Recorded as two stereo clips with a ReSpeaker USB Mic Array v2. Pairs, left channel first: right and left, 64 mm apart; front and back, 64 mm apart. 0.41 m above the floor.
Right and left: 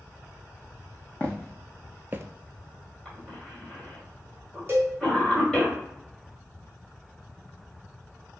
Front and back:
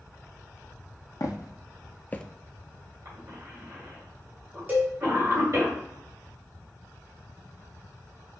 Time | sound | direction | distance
1.2 | footsteps | 25° right | 1.1 m
3.0 | a cough | 175° right | 2.5 m
4.7 | a cowbell | 135° left | 2 m